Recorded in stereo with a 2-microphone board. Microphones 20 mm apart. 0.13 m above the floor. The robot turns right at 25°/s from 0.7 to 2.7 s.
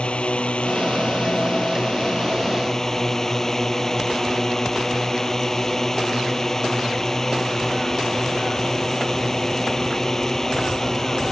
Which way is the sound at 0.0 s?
110° left.